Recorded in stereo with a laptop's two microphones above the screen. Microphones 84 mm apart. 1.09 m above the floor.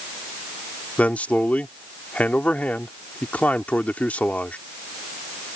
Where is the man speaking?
20° left (ahead or behind).